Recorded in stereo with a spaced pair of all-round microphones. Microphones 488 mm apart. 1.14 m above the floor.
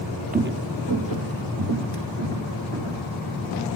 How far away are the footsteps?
About 1.5 m.